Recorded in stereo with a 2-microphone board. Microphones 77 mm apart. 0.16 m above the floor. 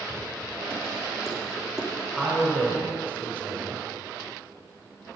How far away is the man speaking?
About 3.5 m.